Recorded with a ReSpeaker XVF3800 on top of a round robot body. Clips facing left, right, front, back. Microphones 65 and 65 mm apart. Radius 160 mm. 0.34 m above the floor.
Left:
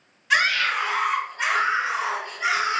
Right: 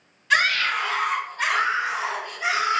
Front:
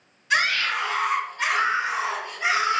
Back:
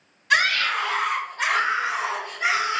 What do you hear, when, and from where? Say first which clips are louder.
0.3 s a scream: even, back 2 dB; 170° left, 2 m; by 2.8 s 130° left, 2.5 m